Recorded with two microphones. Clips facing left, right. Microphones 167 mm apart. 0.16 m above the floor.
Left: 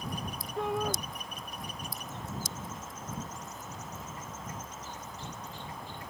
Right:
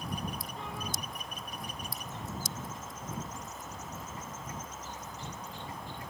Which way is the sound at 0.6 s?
60° left (ahead or behind).